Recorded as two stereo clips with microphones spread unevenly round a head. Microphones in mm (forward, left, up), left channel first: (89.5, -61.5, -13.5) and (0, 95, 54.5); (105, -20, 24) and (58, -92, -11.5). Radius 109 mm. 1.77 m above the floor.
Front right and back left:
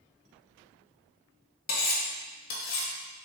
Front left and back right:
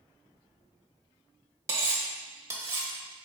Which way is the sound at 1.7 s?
55° right.